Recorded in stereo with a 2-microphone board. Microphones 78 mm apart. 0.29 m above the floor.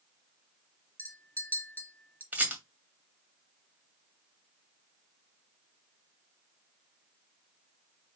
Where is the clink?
30° left (ahead or behind), 3 m.